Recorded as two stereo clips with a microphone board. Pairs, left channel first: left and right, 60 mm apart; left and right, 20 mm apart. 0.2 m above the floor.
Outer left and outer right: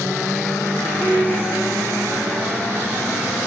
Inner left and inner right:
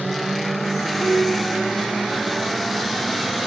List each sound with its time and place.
1.0 s a piano: 70° left (ahead or behind), 4.5 m